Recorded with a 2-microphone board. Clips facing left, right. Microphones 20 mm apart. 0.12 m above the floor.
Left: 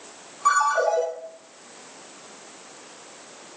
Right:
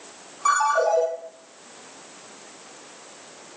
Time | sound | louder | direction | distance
0.5 | a ringtone | even | 20° right (ahead or behind) | 1.7 m